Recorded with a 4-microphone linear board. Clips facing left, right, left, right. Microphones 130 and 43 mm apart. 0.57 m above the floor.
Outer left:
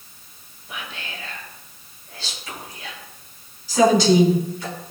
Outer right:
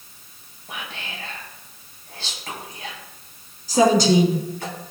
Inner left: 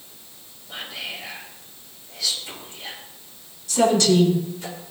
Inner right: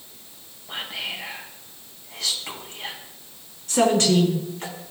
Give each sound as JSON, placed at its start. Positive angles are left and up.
{"t": 0.7, "sound": "whispering", "side_deg": -60, "distance_m": 4.5}
{"t": 3.7, "sound": "a woman speaking", "side_deg": -45, "distance_m": 6.0}